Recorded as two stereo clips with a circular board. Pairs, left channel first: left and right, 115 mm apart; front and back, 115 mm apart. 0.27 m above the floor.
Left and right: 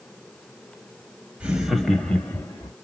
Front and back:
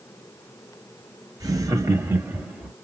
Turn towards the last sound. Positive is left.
turn(degrees=105)